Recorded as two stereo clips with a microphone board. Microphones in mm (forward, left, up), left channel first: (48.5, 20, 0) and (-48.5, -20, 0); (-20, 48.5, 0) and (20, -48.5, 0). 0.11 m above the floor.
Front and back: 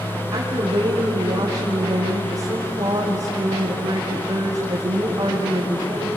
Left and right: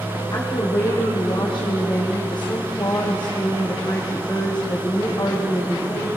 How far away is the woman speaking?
About 5.5 m.